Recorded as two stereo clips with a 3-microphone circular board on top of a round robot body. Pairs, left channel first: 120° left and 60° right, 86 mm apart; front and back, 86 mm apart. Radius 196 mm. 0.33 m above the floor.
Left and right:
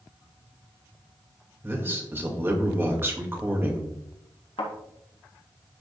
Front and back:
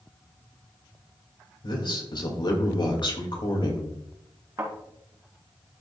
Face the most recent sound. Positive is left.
turn(degrees=125)